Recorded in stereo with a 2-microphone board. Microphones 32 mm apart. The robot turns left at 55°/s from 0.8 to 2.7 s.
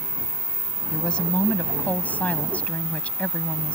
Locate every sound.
0.9 s a woman speaking: 155° left; by 3.8 s 55° left